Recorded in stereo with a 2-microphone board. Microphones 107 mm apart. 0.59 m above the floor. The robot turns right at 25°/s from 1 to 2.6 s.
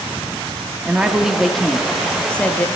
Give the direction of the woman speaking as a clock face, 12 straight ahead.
12 o'clock.